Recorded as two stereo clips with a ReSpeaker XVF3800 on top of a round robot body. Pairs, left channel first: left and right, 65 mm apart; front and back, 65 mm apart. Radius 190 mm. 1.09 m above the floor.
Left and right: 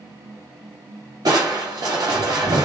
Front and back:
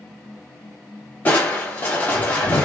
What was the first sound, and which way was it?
Crushing, 65° right.